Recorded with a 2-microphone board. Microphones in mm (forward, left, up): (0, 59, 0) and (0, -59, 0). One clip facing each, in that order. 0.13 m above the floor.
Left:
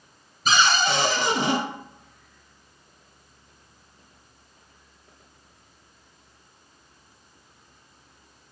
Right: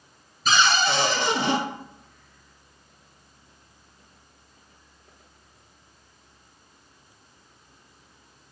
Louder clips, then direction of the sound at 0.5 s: Even; 20° left (ahead or behind).